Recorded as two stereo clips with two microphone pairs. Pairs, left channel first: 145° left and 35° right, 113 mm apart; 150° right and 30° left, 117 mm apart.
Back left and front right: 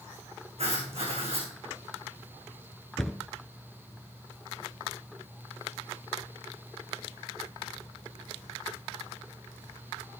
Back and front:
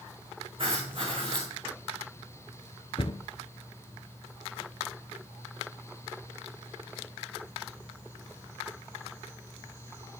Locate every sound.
0.6 s writing: 10° right, 3.5 m
3.0 s a cupboard door: 130° right, 0.6 m